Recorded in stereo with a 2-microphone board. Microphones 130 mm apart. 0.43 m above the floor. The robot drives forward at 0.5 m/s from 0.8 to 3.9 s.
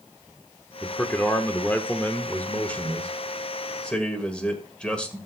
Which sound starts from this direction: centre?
A man speaking, at 0.8 s.